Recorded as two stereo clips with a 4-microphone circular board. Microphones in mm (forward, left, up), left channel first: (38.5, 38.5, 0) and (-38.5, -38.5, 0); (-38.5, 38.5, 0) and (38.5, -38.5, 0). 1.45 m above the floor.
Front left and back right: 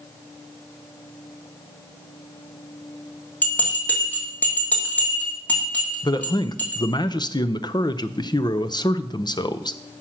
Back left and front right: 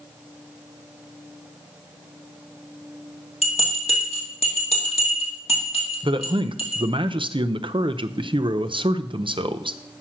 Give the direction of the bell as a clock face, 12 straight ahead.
8 o'clock.